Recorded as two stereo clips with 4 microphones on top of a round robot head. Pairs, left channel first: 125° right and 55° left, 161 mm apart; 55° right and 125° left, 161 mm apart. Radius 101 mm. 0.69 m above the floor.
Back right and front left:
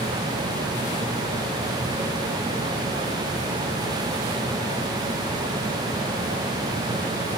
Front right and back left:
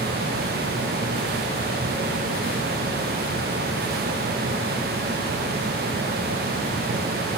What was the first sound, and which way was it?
Only background noise.